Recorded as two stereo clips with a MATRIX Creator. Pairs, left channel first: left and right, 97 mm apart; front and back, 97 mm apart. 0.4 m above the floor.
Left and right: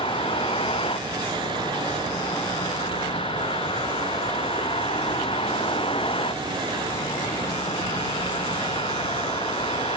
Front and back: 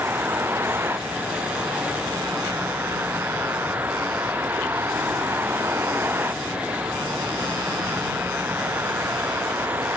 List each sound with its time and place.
0.0 s a vehicle: 115° left